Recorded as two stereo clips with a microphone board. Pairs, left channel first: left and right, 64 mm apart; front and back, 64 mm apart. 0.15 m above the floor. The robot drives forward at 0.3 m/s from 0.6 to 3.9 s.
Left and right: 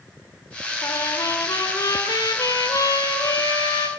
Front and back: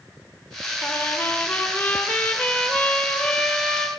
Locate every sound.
0.8 s a trumpet: 65° left, 3 m; by 3.9 s 85° left, 2.5 m